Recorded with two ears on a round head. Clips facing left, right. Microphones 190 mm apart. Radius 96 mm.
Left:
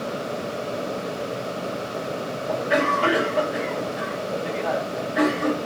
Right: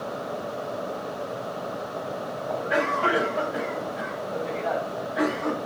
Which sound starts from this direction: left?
A cough, at 2.5 s.